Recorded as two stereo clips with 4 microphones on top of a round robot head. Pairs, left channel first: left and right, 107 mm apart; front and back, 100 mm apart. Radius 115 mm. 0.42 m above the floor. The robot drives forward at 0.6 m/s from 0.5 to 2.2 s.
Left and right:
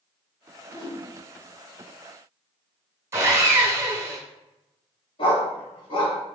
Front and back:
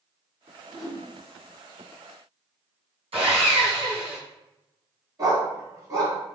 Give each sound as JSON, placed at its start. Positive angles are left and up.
{"t": 0.7, "sound": "a whoosh", "azimuth_deg": 100, "distance_m": 1.8}
{"t": 3.1, "sound": "sawing", "azimuth_deg": -155, "distance_m": 1.7}
{"t": 5.2, "sound": "a dog barking", "azimuth_deg": 130, "distance_m": 1.6}